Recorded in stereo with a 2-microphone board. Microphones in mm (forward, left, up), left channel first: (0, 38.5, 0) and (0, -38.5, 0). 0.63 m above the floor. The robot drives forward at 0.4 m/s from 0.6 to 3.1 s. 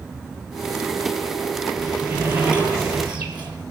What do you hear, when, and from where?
1.8 s a sliding door: 15° right (ahead or behind), 8 m